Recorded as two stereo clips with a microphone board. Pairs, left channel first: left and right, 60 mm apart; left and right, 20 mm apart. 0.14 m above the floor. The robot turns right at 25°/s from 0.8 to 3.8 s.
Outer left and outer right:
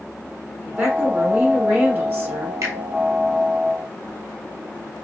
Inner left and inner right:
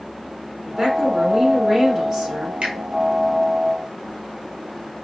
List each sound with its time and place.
0.7 s a woman speaking: 140° right, 1.8 m; by 2.5 s 95° right, 1.8 m
2.6 s a finger snap: 60° right (ahead or behind), 1.7 m